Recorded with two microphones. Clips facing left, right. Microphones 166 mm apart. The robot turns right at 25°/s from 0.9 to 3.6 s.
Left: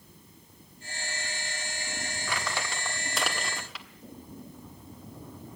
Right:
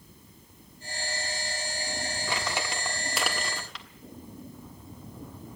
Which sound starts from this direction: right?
Crumpling, at 2.3 s.